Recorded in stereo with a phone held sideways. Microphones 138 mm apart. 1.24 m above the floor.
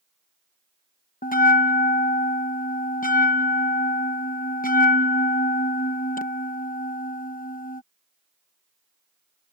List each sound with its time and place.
1.2 s a bell: 85° left